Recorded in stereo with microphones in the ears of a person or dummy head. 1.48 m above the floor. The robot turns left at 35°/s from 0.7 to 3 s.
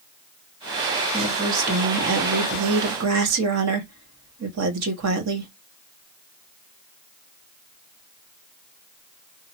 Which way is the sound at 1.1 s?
35° right.